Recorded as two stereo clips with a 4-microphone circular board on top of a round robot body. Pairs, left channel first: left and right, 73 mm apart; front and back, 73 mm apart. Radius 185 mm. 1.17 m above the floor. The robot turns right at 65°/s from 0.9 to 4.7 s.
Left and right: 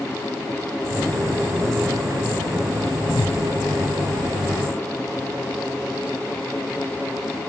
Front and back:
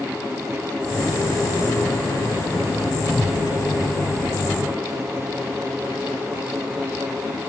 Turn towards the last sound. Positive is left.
turn(degrees=-170)